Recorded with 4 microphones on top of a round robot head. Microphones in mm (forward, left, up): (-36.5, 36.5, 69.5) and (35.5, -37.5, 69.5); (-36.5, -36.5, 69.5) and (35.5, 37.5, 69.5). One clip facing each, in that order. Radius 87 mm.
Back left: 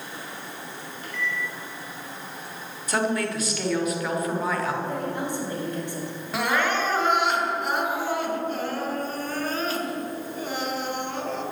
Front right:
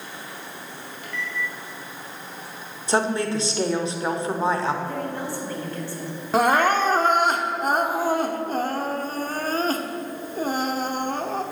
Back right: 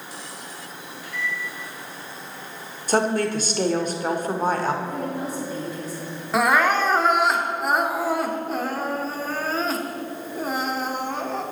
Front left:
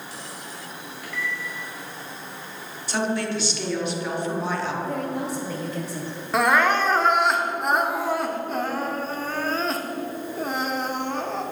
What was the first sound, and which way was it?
A microwave, 80° left.